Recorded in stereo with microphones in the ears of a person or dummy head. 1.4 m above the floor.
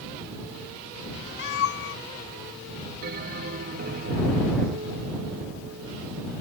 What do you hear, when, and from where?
1.4 s a cat meowing: 65° left (ahead or behind)
3.0 s a bell: 55° right (ahead or behind)